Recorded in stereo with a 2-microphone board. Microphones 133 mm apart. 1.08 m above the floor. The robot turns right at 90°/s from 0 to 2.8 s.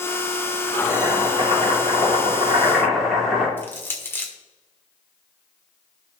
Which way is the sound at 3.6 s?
15° left (ahead or behind).